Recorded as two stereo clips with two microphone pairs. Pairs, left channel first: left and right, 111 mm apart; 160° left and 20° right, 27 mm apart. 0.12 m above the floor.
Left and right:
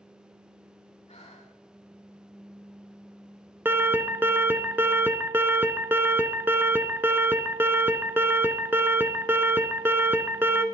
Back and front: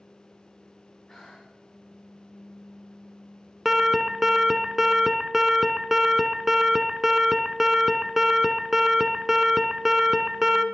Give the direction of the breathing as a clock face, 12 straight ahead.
9 o'clock.